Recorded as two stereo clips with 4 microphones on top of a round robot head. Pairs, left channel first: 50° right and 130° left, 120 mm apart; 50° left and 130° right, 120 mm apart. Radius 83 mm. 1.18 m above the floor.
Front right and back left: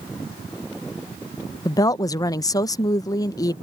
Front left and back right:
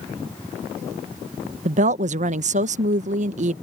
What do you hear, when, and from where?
1.6 s a woman speaking: 110° right